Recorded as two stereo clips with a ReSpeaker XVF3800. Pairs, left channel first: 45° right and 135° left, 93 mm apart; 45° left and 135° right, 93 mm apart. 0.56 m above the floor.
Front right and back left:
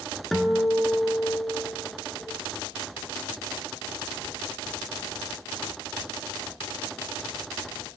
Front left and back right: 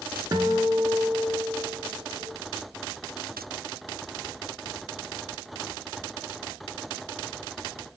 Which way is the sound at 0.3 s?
130° right.